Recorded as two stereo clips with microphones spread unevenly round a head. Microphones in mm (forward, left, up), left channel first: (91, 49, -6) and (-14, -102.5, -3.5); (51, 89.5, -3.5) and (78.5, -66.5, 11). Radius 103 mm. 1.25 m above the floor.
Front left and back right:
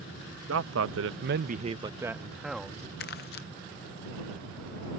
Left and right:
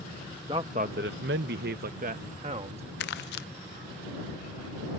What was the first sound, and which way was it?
A man speaking, 150° right.